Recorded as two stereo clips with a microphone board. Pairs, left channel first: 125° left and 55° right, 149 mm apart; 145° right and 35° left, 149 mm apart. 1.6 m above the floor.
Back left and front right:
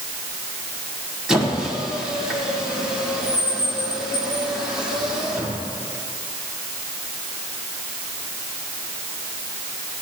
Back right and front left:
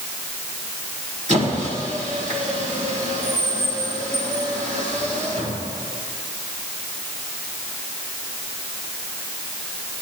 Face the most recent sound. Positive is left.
turn(degrees=30)